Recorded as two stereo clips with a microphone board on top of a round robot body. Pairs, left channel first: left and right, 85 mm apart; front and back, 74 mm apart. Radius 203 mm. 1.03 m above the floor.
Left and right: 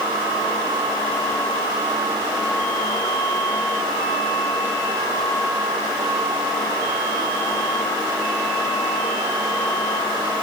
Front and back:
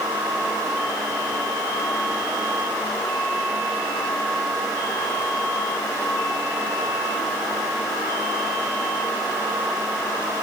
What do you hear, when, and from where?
Only background noise.